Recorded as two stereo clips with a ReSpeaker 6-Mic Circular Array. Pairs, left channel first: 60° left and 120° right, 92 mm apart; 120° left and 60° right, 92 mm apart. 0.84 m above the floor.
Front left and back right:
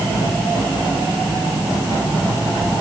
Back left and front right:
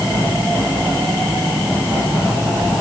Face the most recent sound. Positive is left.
No sound to turn to.